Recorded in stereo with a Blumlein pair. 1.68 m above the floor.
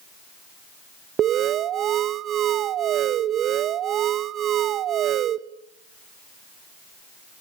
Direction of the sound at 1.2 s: 30° right.